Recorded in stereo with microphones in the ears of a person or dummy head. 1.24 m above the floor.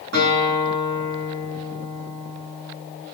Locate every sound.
0.1 s a guitar: 70° right (ahead or behind), 9.5 m